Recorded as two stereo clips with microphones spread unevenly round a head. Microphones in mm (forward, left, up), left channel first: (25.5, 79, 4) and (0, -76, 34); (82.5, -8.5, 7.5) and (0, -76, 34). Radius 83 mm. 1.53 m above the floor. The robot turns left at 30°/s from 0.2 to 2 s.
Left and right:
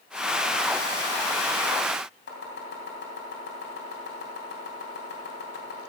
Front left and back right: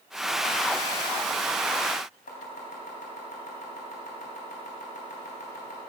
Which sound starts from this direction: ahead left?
Chopping, at 2.3 s.